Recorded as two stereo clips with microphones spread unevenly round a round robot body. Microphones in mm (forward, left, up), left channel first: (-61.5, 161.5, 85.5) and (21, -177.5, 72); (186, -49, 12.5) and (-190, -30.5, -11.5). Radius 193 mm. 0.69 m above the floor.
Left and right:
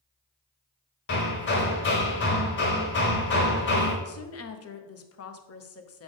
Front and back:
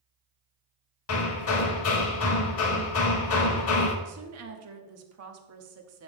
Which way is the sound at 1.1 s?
45° left.